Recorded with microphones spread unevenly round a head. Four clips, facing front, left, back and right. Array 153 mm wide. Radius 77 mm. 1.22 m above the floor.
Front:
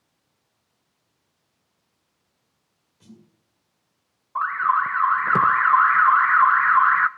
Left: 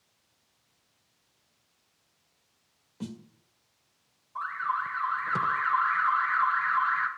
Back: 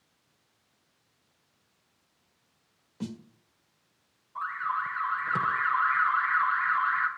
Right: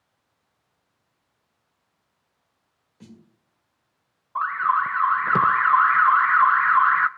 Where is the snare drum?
150° left, 1.9 m.